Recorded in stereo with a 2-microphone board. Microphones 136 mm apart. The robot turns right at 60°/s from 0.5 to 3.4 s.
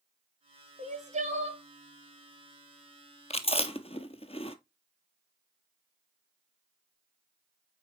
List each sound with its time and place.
0.8 s crying: 105° right, 1.1 m; by 1.6 s 55° right, 1.1 m
3.3 s chewing: 50° left (ahead or behind), 0.6 m; by 4.6 s 45° left (ahead or behind), 0.6 m